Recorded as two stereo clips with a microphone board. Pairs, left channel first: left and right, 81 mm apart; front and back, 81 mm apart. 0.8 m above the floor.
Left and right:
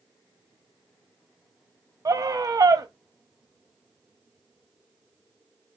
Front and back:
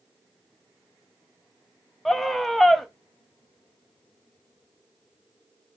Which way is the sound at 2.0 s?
85° right.